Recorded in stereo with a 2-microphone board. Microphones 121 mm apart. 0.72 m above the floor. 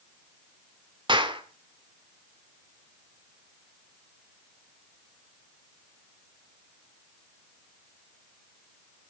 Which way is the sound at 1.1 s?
45° right (ahead or behind).